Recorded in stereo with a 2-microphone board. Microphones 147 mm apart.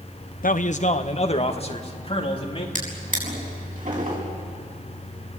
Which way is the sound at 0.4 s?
65° left (ahead or behind).